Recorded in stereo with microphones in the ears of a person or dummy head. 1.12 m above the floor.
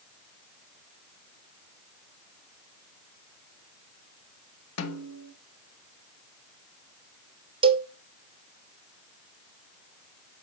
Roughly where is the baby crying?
No baby crying in this recording.